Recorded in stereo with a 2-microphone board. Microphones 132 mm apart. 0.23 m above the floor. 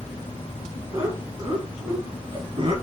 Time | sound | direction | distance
0.9 | laughter | 25° right (ahead or behind) | 2 m